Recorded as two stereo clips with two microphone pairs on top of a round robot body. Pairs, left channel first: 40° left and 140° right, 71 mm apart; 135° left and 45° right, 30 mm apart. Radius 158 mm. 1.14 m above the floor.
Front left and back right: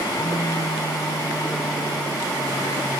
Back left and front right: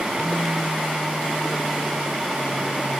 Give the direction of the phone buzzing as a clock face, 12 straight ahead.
5 o'clock.